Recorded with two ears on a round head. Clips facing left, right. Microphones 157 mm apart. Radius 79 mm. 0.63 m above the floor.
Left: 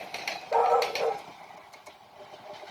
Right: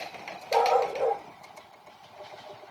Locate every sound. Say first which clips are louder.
0.5 s a dog barking: right 1 dB; 5° right (ahead or behind), 2 m